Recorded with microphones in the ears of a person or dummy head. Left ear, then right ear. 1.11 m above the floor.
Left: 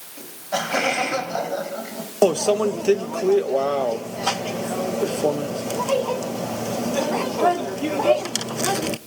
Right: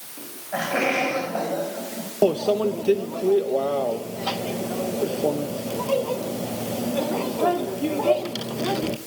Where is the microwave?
55° left (ahead or behind), 0.6 m.